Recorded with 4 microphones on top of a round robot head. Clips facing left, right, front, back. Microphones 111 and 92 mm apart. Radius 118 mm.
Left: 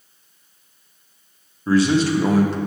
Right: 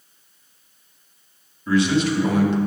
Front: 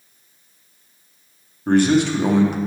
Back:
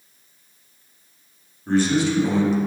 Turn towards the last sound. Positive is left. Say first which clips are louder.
# left 2 dB, front 4 dB
turn(degrees=35)